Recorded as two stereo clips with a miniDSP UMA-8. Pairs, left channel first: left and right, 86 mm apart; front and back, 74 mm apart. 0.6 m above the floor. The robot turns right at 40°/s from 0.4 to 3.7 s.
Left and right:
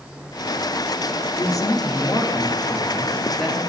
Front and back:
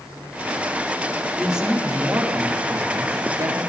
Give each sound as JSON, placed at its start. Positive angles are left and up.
{"t": 1.4, "sound": "a woman speaking", "azimuth_deg": 95, "distance_m": 1.5}